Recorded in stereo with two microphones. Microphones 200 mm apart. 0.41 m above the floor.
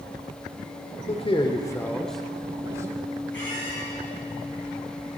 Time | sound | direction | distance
1.1 | a man speaking | 30° left (ahead or behind) | 1.0 m
3.3 | a squeak | 70° left (ahead or behind) | 5 m